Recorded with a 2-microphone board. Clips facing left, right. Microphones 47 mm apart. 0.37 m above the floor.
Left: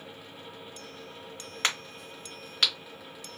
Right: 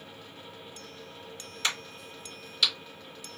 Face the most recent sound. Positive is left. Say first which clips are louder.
# left 2 dB
turn(degrees=60)  # may be behind; listen again after turning